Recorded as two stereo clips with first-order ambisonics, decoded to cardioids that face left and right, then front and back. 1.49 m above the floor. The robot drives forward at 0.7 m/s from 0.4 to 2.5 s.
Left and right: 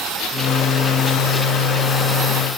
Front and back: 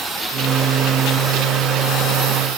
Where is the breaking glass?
No breaking glass in this recording.